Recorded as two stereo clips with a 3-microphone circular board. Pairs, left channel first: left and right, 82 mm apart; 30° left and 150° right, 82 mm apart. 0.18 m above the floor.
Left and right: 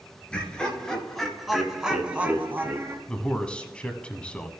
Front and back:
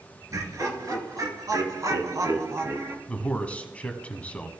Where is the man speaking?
50° left, 1.0 m.